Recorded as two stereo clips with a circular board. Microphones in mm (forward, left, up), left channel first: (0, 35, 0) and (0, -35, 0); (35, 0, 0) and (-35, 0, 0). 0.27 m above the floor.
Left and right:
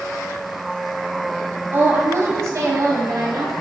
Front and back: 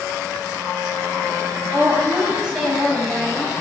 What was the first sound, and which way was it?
A woman speaking, 130° right.